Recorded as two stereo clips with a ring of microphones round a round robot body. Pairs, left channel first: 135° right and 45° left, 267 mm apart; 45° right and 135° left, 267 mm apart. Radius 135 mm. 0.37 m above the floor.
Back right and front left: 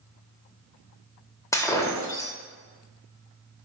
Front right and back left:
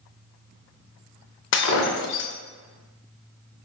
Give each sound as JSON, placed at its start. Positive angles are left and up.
{"t": 1.5, "sound": "breaking glass", "azimuth_deg": -60, "distance_m": 0.6}